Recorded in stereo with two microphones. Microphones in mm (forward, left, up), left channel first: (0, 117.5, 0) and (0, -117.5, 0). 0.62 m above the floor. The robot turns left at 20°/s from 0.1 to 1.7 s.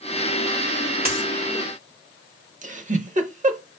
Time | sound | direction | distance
1.1 | a dropped coin | 35° right (ahead or behind) | 1.4 m
2.6 | a giggle | 30° right (ahead or behind) | 0.7 m